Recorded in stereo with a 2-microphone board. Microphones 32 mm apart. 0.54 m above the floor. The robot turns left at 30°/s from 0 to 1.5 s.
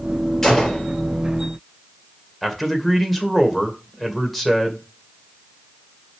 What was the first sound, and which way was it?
A gunshot, 10° left (ahead or behind).